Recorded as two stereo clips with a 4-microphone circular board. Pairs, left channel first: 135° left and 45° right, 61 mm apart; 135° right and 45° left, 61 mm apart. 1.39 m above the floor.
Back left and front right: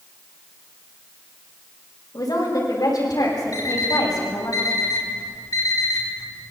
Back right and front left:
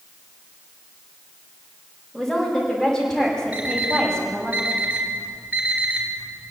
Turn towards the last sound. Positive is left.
turn(degrees=110)